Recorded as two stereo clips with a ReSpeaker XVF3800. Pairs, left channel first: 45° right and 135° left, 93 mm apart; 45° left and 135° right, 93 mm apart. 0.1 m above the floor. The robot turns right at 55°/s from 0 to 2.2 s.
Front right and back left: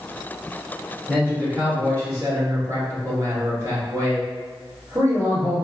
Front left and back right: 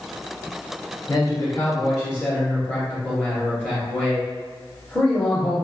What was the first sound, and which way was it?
A man speaking, 45° left.